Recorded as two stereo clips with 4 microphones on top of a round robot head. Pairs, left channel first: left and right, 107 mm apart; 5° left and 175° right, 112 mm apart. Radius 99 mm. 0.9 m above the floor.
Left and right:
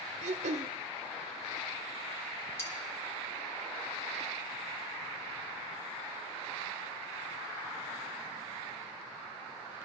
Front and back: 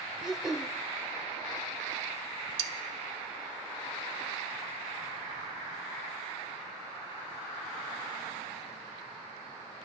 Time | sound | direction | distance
0.2 | throat clearing | 90° right | 0.7 m
2.6 | cutlery clinking | 165° left | 0.5 m